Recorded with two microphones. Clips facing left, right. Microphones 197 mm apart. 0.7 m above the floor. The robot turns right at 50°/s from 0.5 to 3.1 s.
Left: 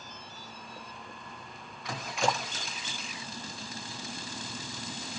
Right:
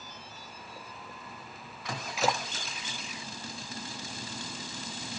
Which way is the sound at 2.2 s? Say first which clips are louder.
Even; centre (ahead or behind).